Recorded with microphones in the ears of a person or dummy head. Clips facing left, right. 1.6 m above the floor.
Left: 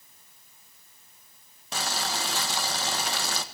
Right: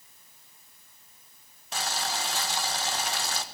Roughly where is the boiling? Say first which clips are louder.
Left 1 dB; left.